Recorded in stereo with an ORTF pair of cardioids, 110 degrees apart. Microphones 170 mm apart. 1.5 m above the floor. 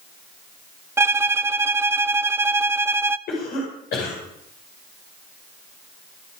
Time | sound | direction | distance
1.0 | a violin | 15° right | 0.6 m
3.3 | a cough | 65° left | 5.5 m